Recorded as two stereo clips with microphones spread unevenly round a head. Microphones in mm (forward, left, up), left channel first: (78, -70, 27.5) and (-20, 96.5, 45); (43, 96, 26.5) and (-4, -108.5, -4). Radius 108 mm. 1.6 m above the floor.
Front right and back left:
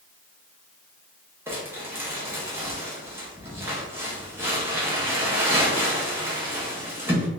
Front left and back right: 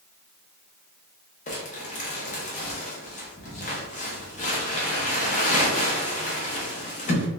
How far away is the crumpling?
About 0.8 m.